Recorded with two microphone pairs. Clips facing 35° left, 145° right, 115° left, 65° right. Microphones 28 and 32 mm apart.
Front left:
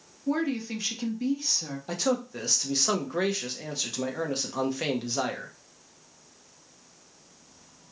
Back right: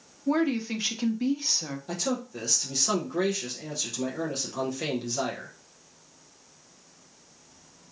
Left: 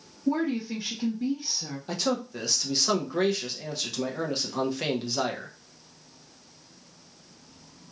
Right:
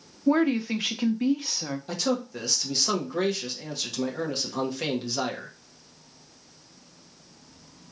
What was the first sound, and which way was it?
A woman speaking, 80° right.